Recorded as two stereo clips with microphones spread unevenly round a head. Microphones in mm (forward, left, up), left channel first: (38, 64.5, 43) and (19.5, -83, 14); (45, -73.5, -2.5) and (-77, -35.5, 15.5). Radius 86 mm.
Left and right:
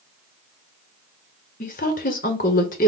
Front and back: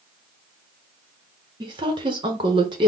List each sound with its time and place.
1.6 s a woman speaking: 110° left, 0.9 m